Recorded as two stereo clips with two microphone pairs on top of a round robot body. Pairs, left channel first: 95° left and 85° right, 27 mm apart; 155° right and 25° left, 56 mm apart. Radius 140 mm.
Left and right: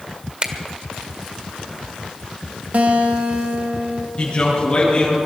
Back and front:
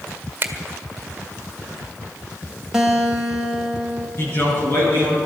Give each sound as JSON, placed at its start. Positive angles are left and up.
{"t": 0.4, "sound": "a finger snap", "azimuth_deg": -25, "distance_m": 1.7}
{"t": 2.7, "sound": "a guitar", "azimuth_deg": -55, "distance_m": 1.7}
{"t": 4.2, "sound": "a man speaking", "azimuth_deg": 155, "distance_m": 7.0}